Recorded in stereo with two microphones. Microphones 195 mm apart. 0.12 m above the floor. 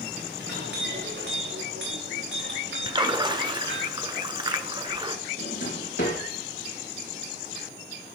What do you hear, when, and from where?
0.4 s a clink: 85° right, 8.5 m
2.9 s a splash: 25° right (ahead or behind), 1.1 m
5.4 s a drawer: 70° left (ahead or behind), 4.5 m